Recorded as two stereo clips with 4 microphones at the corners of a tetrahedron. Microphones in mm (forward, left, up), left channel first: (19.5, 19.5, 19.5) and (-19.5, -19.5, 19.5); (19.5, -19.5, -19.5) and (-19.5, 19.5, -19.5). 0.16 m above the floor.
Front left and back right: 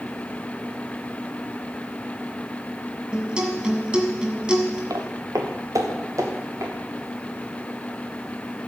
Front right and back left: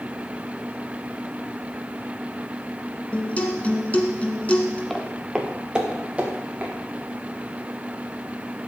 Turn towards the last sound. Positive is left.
turn(degrees=-165)